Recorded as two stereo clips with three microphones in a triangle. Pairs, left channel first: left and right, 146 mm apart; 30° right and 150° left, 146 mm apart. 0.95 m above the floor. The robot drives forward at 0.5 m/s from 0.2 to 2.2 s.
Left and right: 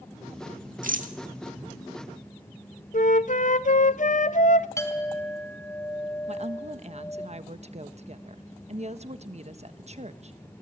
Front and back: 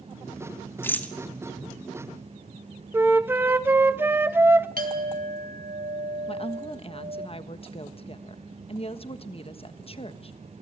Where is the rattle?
105° right, 1.7 m; by 1.1 s 110° right, 1.8 m.